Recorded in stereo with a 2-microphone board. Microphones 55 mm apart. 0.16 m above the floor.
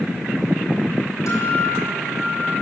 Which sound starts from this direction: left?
A guitar, at 1.3 s.